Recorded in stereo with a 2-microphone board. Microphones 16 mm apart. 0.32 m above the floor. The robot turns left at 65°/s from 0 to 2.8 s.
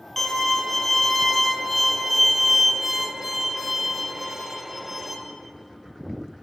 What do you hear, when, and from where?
0.2 s a violin: 20° left (ahead or behind), 1.1 m; by 5.2 s 15° right (ahead or behind), 1.1 m